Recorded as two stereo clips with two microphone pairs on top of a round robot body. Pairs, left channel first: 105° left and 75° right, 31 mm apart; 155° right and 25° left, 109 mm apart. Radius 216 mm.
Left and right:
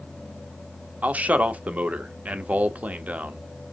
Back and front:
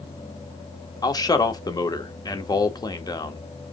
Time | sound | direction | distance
1.0 | a man speaking | 105° right | 1.5 m